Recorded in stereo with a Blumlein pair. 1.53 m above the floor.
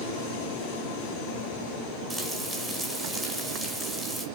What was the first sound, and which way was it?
Frying, straight ahead.